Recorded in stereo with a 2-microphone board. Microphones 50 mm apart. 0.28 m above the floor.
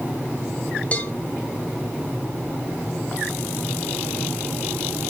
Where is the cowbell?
25° left (ahead or behind), 1.6 m.